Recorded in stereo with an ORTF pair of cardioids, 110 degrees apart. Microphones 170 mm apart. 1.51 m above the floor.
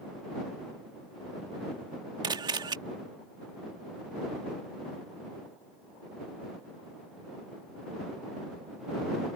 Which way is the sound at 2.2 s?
25° right.